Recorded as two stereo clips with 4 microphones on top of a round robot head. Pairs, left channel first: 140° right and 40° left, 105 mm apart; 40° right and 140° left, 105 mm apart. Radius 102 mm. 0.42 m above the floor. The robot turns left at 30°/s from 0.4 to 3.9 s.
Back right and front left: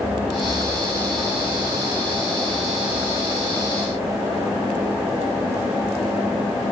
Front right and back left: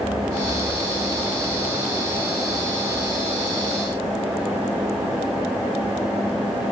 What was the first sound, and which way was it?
Only background noise.